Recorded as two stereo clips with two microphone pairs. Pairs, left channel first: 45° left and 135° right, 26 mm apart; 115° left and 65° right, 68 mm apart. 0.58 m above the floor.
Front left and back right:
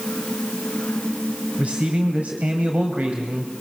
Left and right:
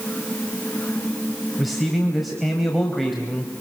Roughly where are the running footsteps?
No running footsteps in this recording.